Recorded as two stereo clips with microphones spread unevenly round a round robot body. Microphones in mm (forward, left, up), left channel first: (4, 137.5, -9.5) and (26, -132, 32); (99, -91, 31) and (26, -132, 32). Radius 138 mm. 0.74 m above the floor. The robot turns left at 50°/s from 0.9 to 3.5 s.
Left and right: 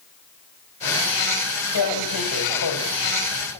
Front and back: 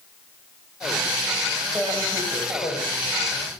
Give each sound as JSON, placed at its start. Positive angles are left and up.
{"t": 1.8, "sound": "tearing paper", "azimuth_deg": 120, "distance_m": 3.5}